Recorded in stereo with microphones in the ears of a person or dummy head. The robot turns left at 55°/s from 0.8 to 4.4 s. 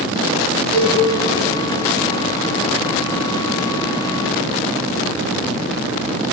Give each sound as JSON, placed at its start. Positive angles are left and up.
{"t": 0.7, "sound": "a cowbell", "side_deg": -60, "distance_m": 4.0}